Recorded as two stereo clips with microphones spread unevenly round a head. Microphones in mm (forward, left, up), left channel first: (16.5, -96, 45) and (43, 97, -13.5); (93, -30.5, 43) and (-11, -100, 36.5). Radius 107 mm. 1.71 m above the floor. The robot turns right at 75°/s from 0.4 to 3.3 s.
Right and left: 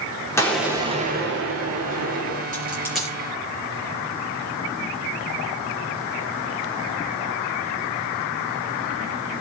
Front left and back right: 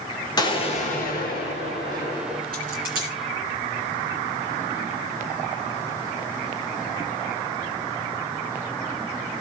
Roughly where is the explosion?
Ahead right.